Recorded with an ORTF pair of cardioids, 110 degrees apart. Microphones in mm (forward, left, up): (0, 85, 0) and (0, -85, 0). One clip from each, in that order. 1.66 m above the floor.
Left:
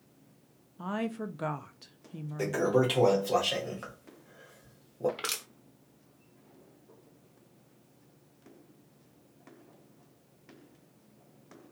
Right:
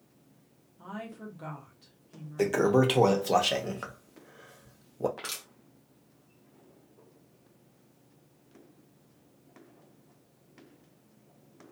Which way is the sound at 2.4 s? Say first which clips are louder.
Right 3 dB; 35° right.